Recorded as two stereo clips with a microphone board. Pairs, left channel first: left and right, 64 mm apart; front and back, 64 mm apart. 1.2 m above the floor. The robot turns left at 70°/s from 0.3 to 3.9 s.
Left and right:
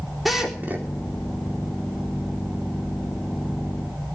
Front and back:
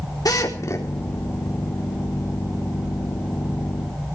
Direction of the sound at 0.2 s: Straight ahead.